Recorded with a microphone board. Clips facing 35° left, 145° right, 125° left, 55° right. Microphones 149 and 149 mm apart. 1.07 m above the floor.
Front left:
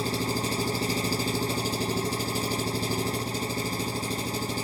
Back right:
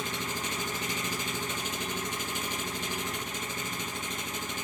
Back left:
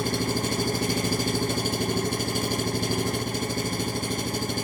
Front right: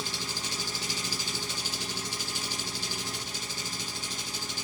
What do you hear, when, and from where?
0.0 s an engine running: 90° left, 0.9 m